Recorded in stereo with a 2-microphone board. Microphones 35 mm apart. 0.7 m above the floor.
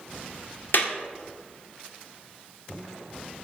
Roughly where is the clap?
Left.